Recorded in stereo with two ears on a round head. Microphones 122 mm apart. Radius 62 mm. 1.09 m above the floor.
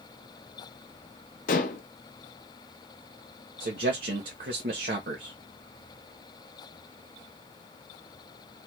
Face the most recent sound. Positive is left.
turn(degrees=-75)  # may be behind; listen again after turning